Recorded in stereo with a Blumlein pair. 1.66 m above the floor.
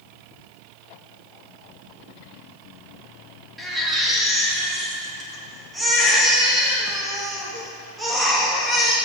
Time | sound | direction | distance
3.6 | a baby crying | 5° right | 1.9 m